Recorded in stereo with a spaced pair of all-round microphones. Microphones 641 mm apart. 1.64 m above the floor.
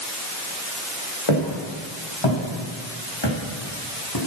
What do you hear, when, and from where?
1.3 s footsteps: 50° left (ahead or behind), 7.5 m; by 4.2 s 35° left (ahead or behind), 5 m